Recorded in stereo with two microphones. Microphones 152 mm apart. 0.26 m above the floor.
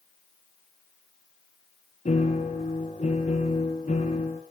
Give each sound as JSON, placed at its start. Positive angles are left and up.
{"t": 2.0, "sound": "a piano", "side_deg": 55, "distance_m": 3.5}